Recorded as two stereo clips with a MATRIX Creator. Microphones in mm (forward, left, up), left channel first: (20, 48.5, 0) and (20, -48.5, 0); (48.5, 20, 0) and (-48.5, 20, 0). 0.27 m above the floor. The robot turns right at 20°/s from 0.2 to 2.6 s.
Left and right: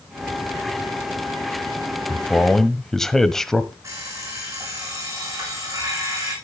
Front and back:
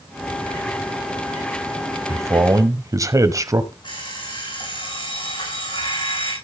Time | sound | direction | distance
2.1 | a man speaking | 160° left | 1.1 m
3.8 | an alarm clock | 30° right | 8.5 m